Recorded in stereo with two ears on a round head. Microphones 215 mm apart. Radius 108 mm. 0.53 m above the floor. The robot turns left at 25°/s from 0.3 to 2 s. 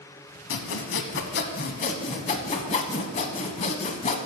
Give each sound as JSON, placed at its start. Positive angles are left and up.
{"t": 0.5, "sound": "sawing", "azimuth_deg": 70, "distance_m": 0.8}